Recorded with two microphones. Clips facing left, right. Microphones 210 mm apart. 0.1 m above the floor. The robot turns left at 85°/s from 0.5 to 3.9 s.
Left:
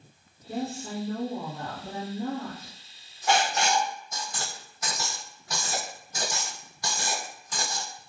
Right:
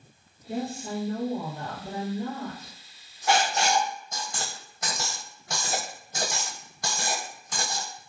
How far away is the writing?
About 1.0 m.